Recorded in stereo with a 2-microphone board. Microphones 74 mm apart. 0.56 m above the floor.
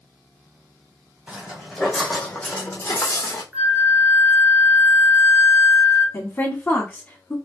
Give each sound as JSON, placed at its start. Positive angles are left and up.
{"t": 1.3, "sound": "footsteps", "side_deg": -15, "distance_m": 1.3}
{"t": 3.5, "sound": "a flute", "side_deg": -15, "distance_m": 1.2}
{"t": 6.1, "sound": "a woman speaking", "side_deg": 25, "distance_m": 1.5}